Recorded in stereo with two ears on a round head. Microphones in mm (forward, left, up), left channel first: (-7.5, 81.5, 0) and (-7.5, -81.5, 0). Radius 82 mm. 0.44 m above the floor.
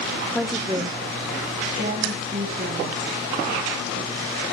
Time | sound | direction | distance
0.3 | a woman speaking | 5° left (ahead or behind) | 0.8 m